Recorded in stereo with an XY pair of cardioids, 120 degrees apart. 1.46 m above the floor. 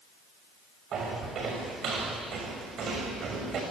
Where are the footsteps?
60° right, 6.5 m.